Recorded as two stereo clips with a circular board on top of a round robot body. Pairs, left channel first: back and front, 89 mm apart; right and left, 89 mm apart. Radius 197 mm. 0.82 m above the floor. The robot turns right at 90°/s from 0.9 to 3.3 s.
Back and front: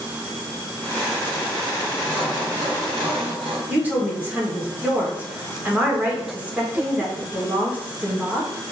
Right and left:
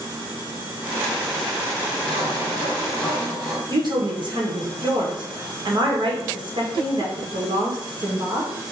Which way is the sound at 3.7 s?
70° left.